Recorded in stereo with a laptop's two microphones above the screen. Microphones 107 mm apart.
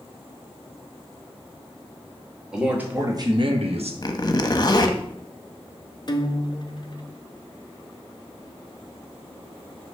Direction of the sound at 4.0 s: 40° left (ahead or behind).